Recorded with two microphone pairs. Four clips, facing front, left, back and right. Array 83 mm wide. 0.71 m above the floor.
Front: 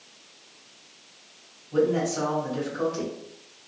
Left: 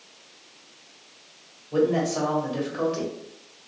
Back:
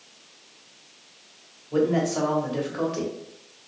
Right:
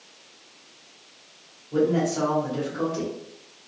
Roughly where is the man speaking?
Behind left.